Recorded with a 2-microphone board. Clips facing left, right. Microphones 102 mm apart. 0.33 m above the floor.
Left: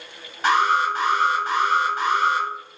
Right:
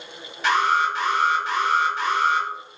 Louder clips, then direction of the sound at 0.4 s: Left 1 dB; 45° left (ahead or behind).